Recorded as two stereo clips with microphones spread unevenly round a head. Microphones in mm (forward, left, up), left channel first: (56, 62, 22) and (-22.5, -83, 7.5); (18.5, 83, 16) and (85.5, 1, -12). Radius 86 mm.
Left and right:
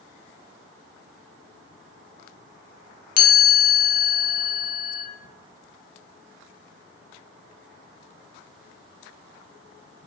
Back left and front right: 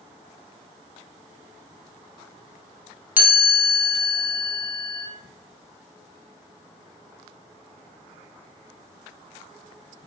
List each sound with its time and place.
3.2 s a chime: 20° left, 0.6 m